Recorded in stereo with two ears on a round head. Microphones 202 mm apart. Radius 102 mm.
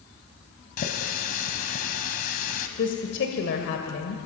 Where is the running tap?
40° left (ahead or behind), 1.9 m.